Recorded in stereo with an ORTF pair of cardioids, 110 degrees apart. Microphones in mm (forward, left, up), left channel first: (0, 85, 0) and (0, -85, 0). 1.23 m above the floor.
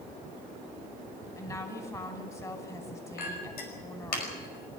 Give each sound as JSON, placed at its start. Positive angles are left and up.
{"t": 1.4, "sound": "a woman speaking", "azimuth_deg": 20, "distance_m": 6.0}
{"t": 3.2, "sound": "a clink", "azimuth_deg": 65, "distance_m": 5.5}